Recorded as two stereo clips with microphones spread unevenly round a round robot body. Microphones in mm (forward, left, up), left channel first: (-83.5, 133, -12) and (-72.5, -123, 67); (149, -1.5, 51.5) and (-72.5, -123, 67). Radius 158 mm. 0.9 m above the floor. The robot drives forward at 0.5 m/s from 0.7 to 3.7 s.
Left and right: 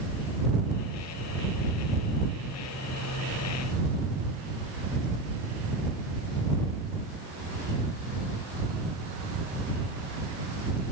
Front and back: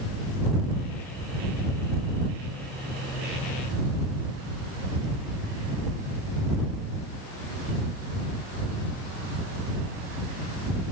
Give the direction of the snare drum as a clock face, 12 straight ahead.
No snare drum in this recording.